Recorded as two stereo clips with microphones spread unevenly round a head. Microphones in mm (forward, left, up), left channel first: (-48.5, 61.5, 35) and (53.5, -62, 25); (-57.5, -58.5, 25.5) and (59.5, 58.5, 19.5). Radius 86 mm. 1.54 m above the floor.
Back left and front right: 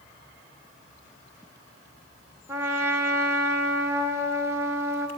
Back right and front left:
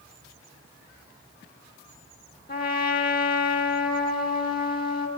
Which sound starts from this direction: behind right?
A trumpet, at 2.5 s.